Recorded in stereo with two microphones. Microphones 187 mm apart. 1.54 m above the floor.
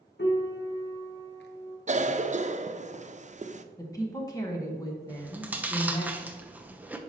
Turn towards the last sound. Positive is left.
turn(degrees=-10)  # may be behind; listen again after turning